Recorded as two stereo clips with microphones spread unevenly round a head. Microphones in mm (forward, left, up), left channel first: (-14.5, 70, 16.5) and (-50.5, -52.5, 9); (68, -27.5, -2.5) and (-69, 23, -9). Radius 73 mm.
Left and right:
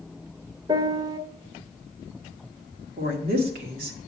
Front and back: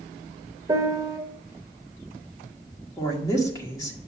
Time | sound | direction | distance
0.7 | a piano | 150° right | 0.8 m
3.0 | a woman speaking | 90° right | 1.8 m